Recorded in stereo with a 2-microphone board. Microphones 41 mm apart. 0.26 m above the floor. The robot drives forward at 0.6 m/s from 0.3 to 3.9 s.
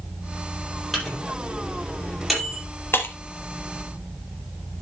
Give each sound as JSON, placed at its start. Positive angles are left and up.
{"t": 0.9, "sound": "a microwave", "side_deg": 5, "distance_m": 6.0}
{"t": 2.9, "sound": "breaking glass", "side_deg": 65, "distance_m": 1.7}